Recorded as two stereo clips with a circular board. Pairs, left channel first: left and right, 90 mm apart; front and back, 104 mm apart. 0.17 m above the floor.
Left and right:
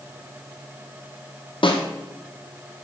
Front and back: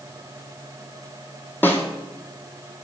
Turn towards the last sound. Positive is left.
turn(degrees=70)